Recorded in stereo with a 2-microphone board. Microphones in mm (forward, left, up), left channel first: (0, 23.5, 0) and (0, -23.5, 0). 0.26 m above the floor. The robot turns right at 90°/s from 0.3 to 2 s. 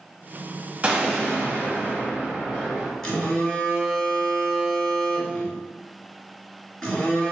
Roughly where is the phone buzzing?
Centre.